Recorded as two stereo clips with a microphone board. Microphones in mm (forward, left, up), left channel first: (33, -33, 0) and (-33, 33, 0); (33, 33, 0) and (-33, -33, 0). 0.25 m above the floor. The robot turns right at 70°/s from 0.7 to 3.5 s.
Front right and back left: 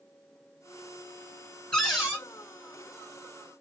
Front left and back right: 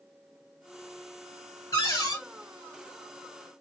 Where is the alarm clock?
No alarm clock in this recording.